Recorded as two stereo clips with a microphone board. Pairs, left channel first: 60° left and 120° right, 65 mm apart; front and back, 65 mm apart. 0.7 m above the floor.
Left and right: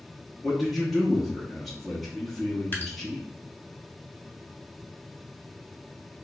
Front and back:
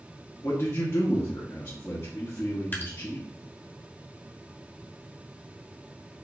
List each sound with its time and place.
0.4 s a man speaking: 30° right, 1.0 m
2.7 s dripping: 30° left, 1.0 m